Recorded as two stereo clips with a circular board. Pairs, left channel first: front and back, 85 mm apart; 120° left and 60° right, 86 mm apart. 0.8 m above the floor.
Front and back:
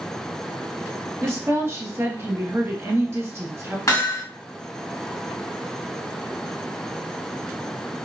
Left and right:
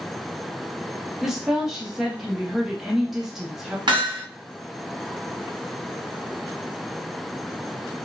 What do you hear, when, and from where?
1.2 s a woman speaking: 145° right, 0.8 m
3.9 s hammering: 45° right, 1.4 m